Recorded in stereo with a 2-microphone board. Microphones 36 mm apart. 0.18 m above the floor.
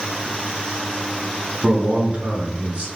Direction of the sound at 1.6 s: 40° right (ahead or behind).